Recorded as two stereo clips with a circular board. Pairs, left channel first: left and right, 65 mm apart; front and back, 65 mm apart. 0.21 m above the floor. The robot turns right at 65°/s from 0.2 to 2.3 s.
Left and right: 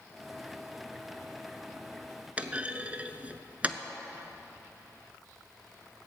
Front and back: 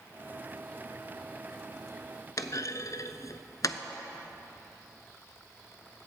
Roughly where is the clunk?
Ahead right.